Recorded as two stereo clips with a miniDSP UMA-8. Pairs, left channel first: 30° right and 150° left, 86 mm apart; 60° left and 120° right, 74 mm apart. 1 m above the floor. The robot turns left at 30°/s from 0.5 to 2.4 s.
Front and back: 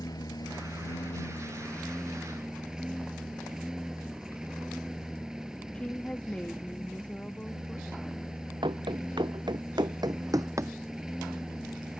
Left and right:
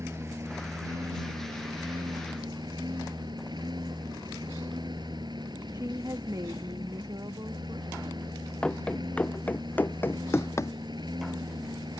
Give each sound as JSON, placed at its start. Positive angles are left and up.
{"t": 0.0, "sound": "a lawn mower", "azimuth_deg": -70}
{"t": 5.7, "sound": "a woman speaking", "azimuth_deg": -105}
{"t": 8.6, "sound": "running footsteps", "azimuth_deg": 135}